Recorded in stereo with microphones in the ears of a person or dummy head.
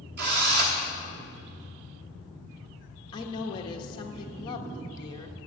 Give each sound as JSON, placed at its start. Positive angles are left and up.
{"t": 0.2, "sound": "a drill", "side_deg": -45, "distance_m": 1.1}
{"t": 3.1, "sound": "a woman speaking", "side_deg": 25, "distance_m": 1.2}